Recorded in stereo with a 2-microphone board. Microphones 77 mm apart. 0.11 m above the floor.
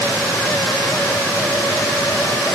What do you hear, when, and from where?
Only background noise.